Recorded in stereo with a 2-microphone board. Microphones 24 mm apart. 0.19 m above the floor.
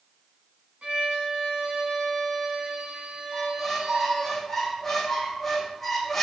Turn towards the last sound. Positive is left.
turn(degrees=10)  # may be behind; listen again after turning